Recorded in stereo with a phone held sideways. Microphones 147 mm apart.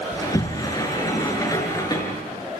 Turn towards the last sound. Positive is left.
turn(degrees=25)  # may be behind; listen again after turning